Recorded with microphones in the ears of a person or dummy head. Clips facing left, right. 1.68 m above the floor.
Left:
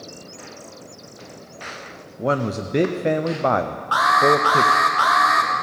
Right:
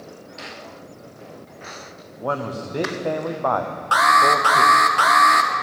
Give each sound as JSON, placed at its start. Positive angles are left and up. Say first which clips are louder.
{"t": 2.2, "sound": "a man speaking", "louder": "left 4 dB", "side_deg": 25, "distance_m": 0.5}
{"t": 3.9, "sound": "an alarm", "louder": "left 2 dB", "side_deg": -30, "distance_m": 0.8}